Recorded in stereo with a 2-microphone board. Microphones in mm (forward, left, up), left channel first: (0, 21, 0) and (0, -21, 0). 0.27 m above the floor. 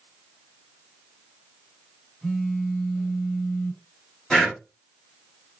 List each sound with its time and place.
2.2 s a phone buzzing: 20° left (ahead or behind), 1.0 m
4.3 s breathing: 20° left (ahead or behind), 1.8 m